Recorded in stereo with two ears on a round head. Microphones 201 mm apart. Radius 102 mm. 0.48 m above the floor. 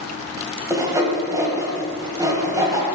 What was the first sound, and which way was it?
Sawing, 15° right (ahead or behind).